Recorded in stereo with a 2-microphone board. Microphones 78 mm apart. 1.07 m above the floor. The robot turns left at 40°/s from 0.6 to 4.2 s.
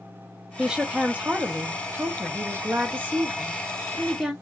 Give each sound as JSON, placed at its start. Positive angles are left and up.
{"t": 0.6, "sound": "a woman speaking", "side_deg": -5, "distance_m": 0.6}